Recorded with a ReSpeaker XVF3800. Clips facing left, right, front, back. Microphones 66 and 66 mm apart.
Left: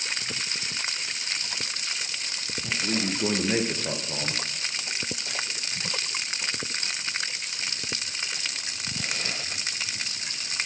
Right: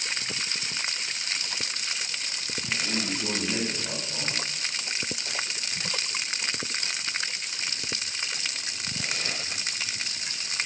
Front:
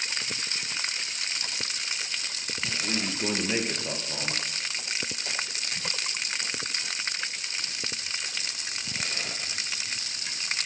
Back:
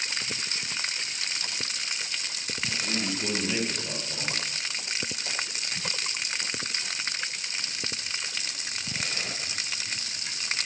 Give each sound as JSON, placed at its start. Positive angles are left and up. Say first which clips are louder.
{"t": 2.6, "sound": "a man speaking", "louder": "left 2 dB, even", "azimuth_deg": 65, "distance_m": 2.0}